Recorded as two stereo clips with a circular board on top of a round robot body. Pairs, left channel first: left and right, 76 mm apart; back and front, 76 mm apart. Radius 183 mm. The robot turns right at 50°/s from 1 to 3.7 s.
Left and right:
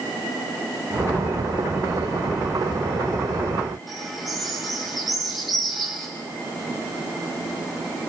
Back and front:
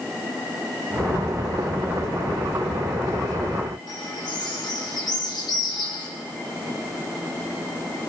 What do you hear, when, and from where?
3.9 s a bird: straight behind, 4.5 m